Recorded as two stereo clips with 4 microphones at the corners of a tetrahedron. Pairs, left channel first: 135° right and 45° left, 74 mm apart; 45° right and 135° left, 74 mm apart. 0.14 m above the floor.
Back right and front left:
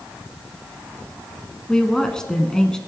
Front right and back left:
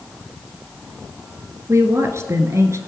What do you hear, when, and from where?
1.7 s a woman speaking: 150° left, 1.3 m